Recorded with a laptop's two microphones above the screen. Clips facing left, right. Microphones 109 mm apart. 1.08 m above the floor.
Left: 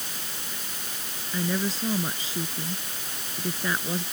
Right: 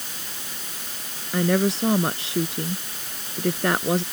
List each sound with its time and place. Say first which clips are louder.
1.3 s a woman speaking: right 7 dB; 70° right (ahead or behind)